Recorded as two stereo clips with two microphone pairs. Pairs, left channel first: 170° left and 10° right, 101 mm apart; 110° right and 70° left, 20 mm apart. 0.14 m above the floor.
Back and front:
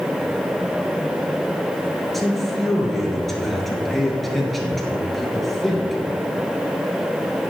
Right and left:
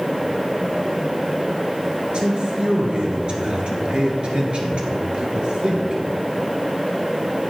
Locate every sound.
2.1 s a man speaking: 80° left, 2.5 m